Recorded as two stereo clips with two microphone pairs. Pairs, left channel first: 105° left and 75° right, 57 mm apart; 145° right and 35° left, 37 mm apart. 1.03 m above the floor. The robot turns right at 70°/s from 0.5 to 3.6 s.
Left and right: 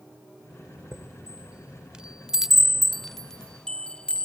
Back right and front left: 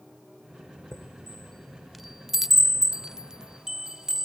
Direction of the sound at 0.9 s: 125° right.